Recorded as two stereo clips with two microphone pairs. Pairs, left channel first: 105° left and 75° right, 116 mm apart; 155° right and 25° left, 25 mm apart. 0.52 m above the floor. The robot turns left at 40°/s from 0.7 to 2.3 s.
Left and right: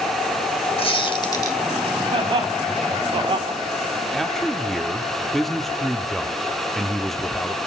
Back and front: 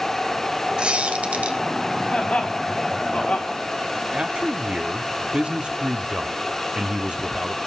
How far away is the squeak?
About 1.8 m.